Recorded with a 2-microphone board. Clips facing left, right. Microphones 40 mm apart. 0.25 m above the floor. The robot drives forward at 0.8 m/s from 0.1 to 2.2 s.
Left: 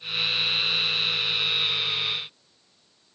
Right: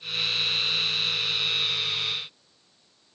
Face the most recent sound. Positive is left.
No sound to turn to.